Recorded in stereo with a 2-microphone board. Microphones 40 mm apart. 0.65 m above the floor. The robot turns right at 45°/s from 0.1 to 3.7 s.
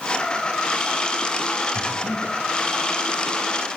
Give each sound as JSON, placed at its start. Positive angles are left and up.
{"t": 1.8, "sound": "breathing", "side_deg": 25, "distance_m": 4.0}